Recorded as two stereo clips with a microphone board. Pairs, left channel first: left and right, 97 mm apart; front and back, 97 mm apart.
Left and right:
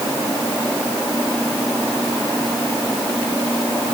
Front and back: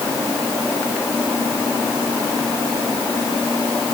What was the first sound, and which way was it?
Only background noise.